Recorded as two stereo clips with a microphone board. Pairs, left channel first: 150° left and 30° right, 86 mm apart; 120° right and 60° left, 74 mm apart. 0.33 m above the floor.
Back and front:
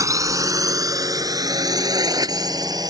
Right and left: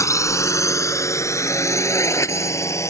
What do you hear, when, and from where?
0.0 s a drone: 80° right; by 2.9 s 70° right